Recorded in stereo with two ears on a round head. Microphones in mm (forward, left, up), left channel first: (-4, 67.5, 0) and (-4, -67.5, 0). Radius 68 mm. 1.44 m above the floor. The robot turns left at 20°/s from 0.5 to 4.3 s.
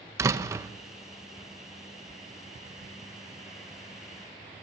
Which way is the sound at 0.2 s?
20° right (ahead or behind).